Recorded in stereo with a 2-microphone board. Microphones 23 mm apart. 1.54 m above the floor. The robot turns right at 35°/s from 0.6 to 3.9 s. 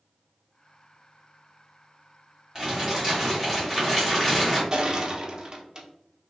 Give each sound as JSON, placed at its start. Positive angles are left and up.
{"t": 2.5, "sound": "crumpling", "azimuth_deg": -30, "distance_m": 1.9}
{"t": 4.7, "sound": "crushing", "side_deg": -30, "distance_m": 0.8}